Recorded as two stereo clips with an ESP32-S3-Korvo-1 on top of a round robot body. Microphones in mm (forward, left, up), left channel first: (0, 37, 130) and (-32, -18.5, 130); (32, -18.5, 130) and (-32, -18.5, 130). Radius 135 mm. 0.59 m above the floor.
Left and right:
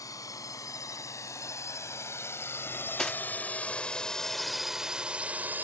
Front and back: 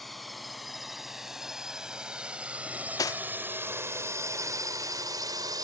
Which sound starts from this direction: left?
A drone, at 0.0 s.